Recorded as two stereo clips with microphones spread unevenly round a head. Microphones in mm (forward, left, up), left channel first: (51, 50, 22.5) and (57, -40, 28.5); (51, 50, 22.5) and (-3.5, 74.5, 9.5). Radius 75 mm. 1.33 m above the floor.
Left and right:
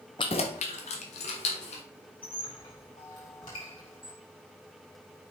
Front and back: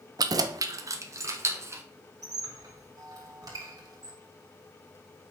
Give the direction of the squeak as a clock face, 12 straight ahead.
7 o'clock.